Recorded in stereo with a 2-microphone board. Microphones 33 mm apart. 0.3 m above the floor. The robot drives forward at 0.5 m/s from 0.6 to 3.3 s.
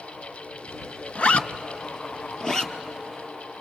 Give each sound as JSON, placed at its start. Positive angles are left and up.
{"t": 1.1, "sound": "a zipper", "side_deg": 50, "distance_m": 0.5}